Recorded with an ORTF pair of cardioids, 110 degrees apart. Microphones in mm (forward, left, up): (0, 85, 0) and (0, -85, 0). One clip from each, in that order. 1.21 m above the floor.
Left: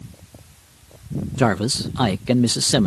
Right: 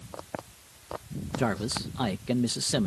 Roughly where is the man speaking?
Ahead left.